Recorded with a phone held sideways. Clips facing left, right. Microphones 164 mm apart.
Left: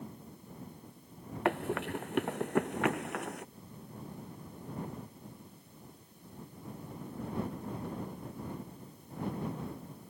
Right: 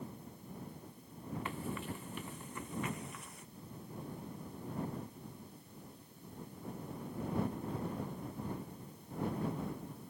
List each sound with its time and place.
1.4 s running footsteps: 70° left (ahead or behind)